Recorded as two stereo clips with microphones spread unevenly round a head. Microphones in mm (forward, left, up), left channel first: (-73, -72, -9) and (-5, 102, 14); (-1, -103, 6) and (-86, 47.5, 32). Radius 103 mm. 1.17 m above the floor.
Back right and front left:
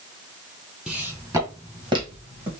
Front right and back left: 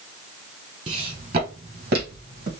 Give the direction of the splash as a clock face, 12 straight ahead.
No splash in this recording.